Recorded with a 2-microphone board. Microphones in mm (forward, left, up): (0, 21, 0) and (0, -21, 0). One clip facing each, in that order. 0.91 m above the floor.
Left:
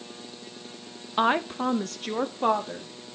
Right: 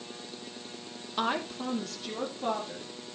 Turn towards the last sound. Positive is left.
turn(degrees=65)  # may be behind; listen again after turning